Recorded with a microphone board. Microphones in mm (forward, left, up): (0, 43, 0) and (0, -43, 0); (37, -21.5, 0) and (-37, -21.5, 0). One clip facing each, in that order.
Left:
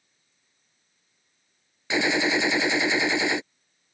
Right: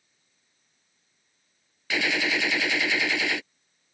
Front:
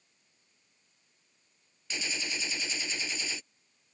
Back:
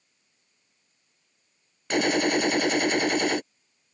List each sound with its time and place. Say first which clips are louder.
1.9 s a gunshot: left 4 dB, back 15 dB; 155° left